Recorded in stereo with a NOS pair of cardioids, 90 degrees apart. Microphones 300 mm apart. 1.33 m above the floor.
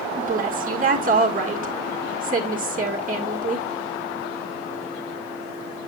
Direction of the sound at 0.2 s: 25° right.